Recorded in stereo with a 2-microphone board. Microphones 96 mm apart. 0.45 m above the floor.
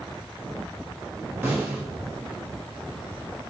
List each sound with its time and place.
1.4 s a snare drum: 25° right (ahead or behind), 0.9 m